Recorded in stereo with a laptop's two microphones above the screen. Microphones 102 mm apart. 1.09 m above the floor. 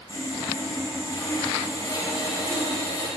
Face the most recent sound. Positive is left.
turn(degrees=40)  # may be behind; listen again after turning